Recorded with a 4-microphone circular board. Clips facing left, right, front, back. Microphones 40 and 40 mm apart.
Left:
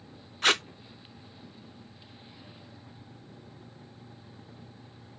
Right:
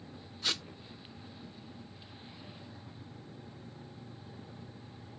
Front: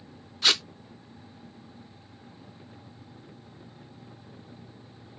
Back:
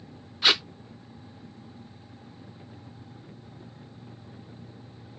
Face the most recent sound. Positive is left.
turn(degrees=105)